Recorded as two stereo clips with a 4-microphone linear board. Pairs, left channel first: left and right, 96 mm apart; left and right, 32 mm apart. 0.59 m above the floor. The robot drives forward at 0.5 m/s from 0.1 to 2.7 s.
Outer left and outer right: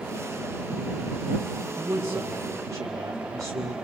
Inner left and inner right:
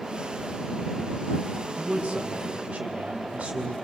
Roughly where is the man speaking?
Right.